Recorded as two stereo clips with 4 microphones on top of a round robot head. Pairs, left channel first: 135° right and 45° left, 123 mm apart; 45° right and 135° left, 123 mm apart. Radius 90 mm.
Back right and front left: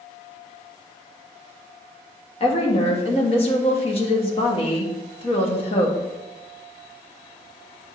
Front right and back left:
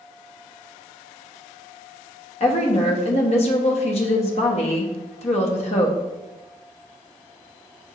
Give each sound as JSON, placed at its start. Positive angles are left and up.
{"t": 2.4, "sound": "a woman speaking", "azimuth_deg": -85, "distance_m": 1.3}